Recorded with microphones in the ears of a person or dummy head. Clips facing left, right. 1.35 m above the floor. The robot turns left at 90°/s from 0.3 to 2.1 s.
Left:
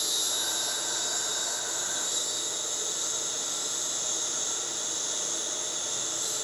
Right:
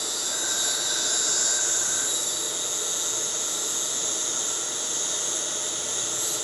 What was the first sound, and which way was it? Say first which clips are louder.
An insect: right 3 dB; 20° left.